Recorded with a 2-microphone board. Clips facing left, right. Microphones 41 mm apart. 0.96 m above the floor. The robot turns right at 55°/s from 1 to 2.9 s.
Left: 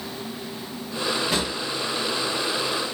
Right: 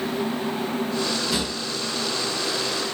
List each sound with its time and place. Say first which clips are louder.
1.3 s a drawer: left 1 dB; 60° left (ahead or behind), 1.3 m; by 1.5 s 65° left (ahead or behind), 1.3 m